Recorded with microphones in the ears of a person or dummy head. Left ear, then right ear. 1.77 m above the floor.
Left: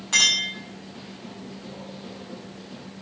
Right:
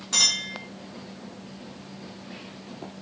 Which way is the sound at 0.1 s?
10° left (ahead or behind).